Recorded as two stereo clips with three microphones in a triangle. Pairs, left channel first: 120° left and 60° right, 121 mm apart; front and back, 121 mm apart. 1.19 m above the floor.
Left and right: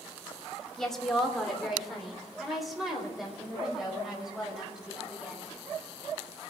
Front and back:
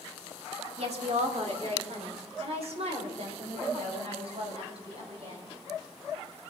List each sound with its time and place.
0.8 s a woman speaking: 155° right, 2.5 m; by 5.5 s 145° right, 6 m